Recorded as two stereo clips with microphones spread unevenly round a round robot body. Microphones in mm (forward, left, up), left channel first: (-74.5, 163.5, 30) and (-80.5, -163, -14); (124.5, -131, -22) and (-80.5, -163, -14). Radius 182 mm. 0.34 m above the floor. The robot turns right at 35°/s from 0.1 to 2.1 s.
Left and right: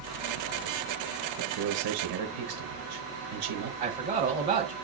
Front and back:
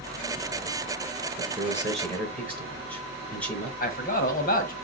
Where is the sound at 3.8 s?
25° right, 2 m.